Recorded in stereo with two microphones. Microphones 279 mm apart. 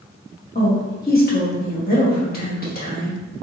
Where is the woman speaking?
30° left (ahead or behind), 1.2 m.